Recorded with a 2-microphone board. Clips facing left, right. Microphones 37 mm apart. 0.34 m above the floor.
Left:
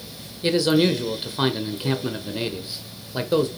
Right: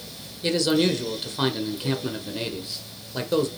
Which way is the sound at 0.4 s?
10° left (ahead or behind).